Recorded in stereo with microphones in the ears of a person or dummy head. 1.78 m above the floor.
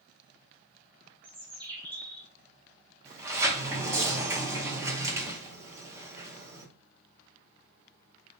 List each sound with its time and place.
1.2 s a bird: 20° right (ahead or behind), 0.5 m
3.0 s a sliding door: 20° right (ahead or behind), 0.6 m